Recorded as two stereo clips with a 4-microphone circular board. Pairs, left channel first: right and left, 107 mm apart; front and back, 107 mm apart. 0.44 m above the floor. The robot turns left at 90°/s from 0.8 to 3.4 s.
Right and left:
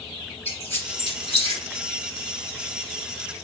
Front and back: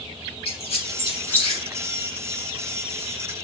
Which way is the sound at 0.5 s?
20° right.